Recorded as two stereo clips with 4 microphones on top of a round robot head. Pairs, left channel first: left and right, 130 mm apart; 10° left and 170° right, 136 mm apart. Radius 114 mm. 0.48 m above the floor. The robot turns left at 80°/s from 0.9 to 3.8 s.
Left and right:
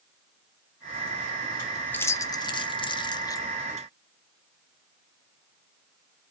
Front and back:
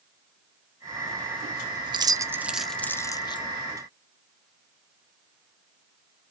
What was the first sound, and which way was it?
Keys jangling, 160° left.